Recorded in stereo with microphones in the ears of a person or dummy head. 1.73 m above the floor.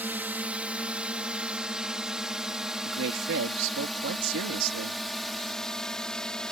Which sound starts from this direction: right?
A woman speaking, at 2.8 s.